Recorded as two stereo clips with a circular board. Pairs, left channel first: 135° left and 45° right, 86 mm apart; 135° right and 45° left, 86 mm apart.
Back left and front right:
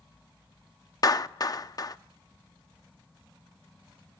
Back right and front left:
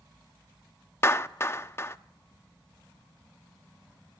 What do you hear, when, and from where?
1.0 s a clap: 170° left, 0.5 m